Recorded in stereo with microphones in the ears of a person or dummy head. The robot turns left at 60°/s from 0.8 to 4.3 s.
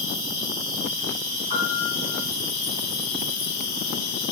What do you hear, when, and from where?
0.0 s an insect: 45° right, 1.2 m; by 4.3 s 105° left, 1.2 m
1.5 s a piano: 120° right, 1.6 m; by 2.2 s 165° right, 1.6 m